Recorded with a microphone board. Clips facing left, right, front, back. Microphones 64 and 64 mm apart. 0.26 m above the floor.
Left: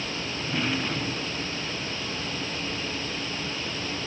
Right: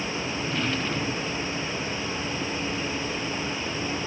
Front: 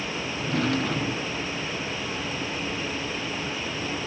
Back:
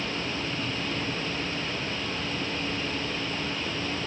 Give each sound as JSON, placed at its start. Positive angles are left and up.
{"t": 0.4, "sound": "a drawer", "azimuth_deg": 10}